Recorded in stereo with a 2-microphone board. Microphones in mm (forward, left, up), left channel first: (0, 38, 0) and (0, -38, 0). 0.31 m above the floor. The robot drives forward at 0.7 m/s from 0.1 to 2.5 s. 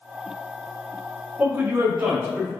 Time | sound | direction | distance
1.4 | a man speaking | 25° right (ahead or behind) | 0.9 m